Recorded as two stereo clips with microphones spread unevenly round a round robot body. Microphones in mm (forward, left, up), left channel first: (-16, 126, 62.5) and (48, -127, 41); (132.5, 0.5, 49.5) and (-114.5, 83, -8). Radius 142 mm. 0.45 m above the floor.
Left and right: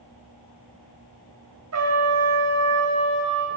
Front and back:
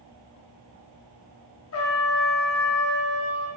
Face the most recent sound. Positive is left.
turn(degrees=-65)